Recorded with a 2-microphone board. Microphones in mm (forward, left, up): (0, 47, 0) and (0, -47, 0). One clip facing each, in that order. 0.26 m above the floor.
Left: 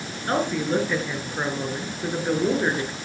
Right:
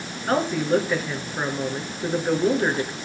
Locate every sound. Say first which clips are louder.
0.3 s a woman speaking: right 2 dB; 5° right (ahead or behind), 3 m